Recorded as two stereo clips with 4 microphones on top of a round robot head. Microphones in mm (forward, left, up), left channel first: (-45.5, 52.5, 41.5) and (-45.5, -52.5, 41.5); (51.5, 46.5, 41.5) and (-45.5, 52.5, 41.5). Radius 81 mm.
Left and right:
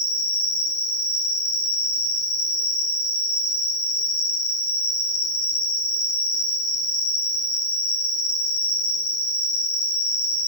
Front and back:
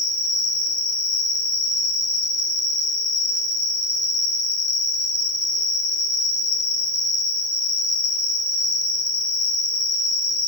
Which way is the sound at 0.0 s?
50° left.